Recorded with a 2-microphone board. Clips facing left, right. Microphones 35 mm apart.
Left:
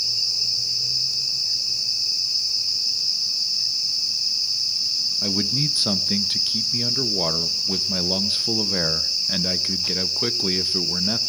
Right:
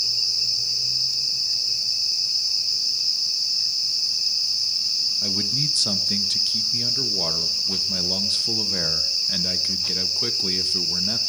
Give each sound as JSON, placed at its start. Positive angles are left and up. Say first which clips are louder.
{"t": 5.2, "sound": "a man speaking", "louder": "left 1 dB", "side_deg": 15, "distance_m": 0.6}